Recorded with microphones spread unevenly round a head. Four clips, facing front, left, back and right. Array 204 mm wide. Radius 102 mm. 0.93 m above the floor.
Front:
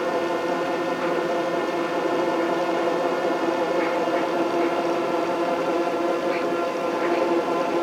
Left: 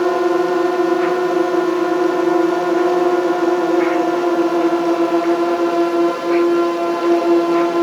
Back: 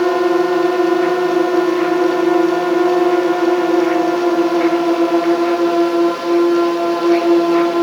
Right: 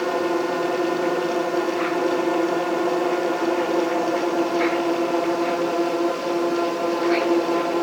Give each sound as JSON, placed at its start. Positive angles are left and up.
{"t": 0.0, "sound": "a drone", "azimuth_deg": 150}